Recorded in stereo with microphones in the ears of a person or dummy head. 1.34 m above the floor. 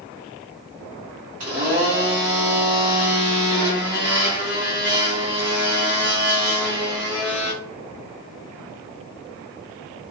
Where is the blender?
35° right (ahead or behind), 1.1 m.